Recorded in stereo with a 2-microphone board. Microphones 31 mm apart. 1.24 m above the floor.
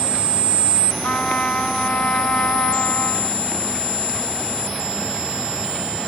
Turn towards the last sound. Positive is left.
turn(degrees=50)  # may be behind; listen again after turning